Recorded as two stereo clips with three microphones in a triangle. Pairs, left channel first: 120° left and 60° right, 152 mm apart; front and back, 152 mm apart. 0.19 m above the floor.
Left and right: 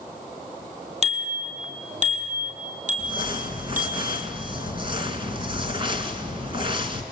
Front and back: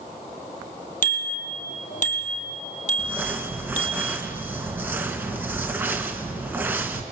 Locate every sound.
1.0 s a bicycle bell: 20° right, 3.5 m; by 4.0 s 30° right, 4.5 m
3.0 s crumpling: 105° right, 2 m